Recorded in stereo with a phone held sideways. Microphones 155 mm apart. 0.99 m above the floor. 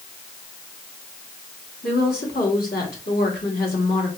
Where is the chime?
No chime in this recording.